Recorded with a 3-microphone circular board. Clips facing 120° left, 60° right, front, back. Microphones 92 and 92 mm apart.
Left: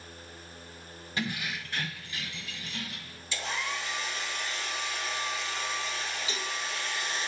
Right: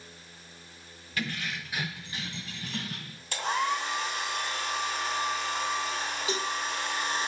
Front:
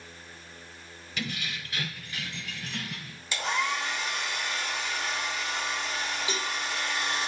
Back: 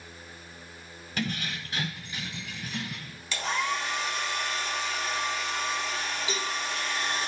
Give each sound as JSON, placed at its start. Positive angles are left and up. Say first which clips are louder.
{"t": 1.2, "sound": "keys jangling", "louder": "even, back 3 dB", "azimuth_deg": 170, "distance_m": 1.0}
{"t": 3.3, "sound": "a hair dryer", "louder": "right 6 dB, even", "azimuth_deg": -75, "distance_m": 3.0}
{"t": 6.3, "sound": "a cowbell", "louder": "right 6 dB, even", "azimuth_deg": -65, "distance_m": 2.0}